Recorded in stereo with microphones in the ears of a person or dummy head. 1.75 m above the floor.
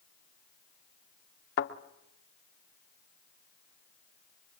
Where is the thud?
55° left (ahead or behind), 2 m.